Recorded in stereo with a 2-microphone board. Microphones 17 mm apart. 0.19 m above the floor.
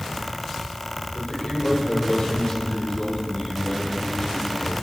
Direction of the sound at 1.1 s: 45° left (ahead or behind).